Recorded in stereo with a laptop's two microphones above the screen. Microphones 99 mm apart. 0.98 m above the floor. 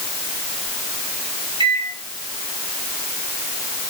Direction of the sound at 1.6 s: 55° right (ahead or behind).